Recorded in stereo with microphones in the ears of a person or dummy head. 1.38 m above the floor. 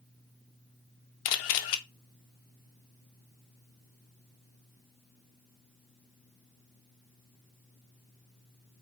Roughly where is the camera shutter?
Left.